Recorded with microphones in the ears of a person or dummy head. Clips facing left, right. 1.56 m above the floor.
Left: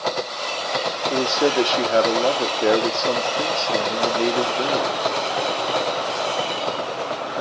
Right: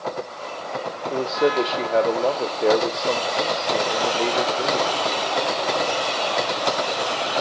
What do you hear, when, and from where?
1.1 s a man speaking: 15° left (ahead or behind), 0.6 m